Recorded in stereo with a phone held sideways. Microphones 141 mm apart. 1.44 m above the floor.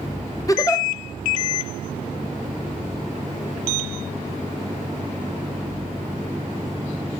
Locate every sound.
0.5 s a giggle: 25° left (ahead or behind), 0.8 m